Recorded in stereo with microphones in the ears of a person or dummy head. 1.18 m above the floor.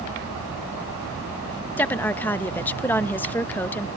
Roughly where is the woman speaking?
Centre.